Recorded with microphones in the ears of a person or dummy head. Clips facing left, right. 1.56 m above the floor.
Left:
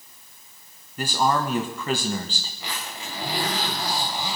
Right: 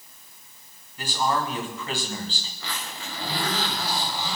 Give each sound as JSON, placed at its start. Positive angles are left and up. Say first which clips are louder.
{"t": 1.0, "sound": "a man speaking", "louder": "left 3 dB", "side_deg": 45, "distance_m": 1.7}
{"t": 2.6, "sound": "a zipper", "louder": "left 1 dB", "side_deg": 20, "distance_m": 3.0}